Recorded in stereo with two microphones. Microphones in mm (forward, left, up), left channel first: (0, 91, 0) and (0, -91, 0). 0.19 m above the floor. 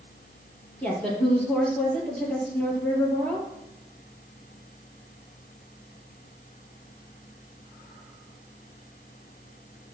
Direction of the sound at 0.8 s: 5° left (ahead or behind).